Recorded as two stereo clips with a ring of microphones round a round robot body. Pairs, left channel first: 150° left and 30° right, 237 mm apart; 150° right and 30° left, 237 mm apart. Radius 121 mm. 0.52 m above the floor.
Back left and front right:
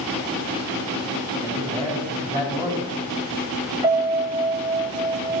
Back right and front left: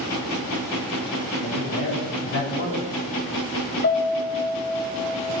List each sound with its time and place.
1.4 s a man speaking: 100° right, 4.5 m
3.8 s a piano: 105° right, 1.9 m